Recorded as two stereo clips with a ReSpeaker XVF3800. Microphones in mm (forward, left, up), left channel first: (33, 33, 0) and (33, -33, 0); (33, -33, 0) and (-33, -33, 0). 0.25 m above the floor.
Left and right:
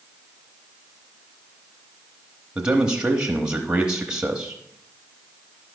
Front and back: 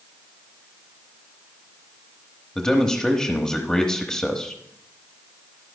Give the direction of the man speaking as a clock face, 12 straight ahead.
2 o'clock.